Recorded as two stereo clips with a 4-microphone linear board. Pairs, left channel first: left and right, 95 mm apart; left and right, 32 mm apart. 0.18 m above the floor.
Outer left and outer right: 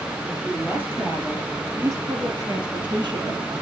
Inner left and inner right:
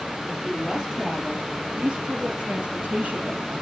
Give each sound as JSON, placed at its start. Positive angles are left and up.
{"t": 0.3, "sound": "a woman speaking", "side_deg": -10, "distance_m": 5.0}